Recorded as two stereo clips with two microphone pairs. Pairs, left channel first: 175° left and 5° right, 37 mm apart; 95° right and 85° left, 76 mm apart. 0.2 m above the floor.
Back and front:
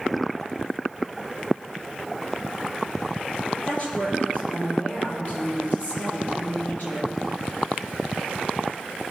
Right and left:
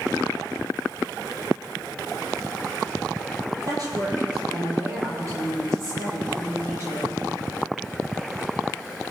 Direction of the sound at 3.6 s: 120° left.